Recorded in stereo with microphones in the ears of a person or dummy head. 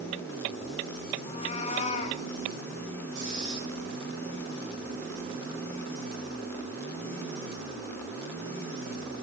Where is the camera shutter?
No camera shutter in this recording.